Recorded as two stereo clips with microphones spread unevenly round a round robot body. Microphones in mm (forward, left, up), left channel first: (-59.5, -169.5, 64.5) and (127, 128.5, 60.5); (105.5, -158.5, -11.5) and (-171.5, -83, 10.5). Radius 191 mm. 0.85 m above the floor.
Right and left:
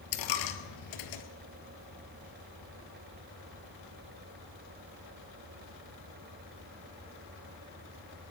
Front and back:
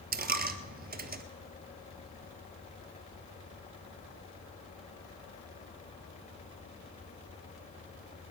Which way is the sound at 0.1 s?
145° right.